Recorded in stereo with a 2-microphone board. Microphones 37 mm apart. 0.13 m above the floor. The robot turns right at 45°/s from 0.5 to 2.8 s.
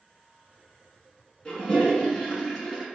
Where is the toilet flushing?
20° left (ahead or behind), 1.0 m; by 2.9 s 5° left (ahead or behind), 1.0 m.